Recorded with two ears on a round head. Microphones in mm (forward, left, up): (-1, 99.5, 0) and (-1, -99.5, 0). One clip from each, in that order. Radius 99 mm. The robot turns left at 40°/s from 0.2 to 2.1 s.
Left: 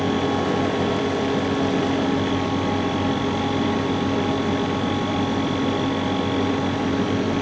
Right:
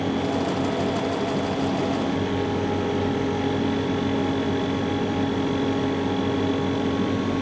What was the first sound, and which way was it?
Only background noise.